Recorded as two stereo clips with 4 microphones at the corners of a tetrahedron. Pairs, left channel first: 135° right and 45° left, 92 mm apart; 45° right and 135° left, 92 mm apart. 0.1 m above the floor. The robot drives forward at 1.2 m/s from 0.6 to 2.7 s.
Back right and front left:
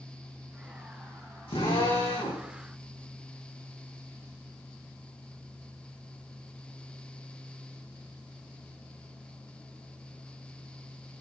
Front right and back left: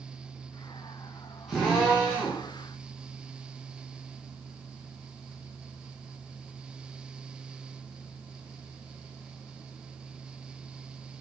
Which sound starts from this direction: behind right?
A drill, at 1.5 s.